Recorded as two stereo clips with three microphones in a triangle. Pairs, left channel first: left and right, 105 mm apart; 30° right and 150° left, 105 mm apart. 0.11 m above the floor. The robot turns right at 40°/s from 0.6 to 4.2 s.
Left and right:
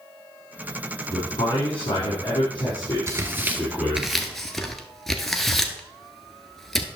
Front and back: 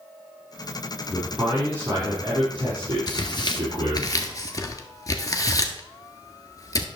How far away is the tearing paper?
About 1.0 m.